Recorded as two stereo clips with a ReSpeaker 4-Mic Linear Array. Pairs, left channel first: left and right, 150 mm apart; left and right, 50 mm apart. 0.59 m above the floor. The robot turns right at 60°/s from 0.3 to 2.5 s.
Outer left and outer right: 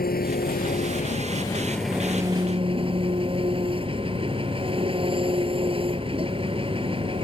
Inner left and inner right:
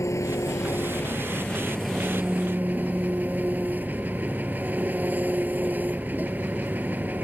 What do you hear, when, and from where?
0.0 s an engine running: 85° left; by 7.2 s 145° right